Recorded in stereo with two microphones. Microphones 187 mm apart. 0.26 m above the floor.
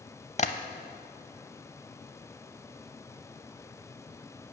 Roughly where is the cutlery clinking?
No cutlery clinking in this recording.